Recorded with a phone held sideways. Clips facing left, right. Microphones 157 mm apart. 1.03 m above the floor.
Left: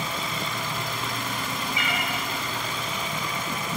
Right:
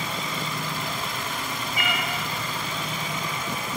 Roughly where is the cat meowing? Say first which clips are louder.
Right 3 dB; right.